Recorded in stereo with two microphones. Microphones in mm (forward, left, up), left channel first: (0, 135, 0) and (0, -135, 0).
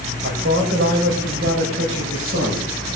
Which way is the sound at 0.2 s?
45° right (ahead or behind).